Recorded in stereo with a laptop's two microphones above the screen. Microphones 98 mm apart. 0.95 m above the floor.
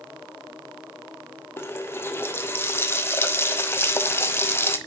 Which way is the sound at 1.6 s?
25° left (ahead or behind).